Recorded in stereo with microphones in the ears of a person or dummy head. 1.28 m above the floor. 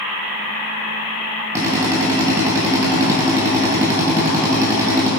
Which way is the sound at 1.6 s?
15° right (ahead or behind).